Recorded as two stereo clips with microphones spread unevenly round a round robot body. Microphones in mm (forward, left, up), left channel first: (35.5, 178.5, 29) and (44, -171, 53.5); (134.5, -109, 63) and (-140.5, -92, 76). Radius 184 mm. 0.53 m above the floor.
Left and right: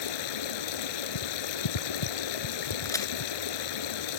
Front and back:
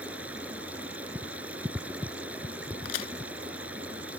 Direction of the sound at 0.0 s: 90° left.